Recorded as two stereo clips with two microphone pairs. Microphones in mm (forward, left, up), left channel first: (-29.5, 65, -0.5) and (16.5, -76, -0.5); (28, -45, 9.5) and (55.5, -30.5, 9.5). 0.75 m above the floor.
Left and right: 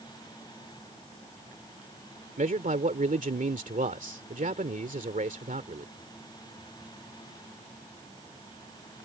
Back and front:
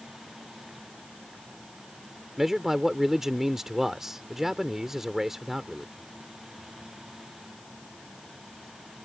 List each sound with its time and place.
2.4 s a man speaking: 50° right